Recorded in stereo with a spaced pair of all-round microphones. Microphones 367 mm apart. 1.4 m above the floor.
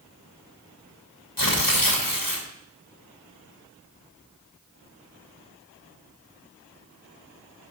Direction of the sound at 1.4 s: 70° left (ahead or behind).